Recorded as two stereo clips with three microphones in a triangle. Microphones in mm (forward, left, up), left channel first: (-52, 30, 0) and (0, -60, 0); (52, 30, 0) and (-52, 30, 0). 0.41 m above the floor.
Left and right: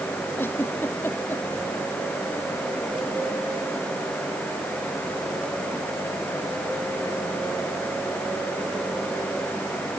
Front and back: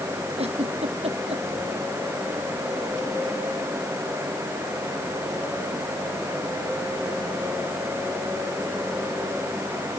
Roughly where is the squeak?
No squeak in this recording.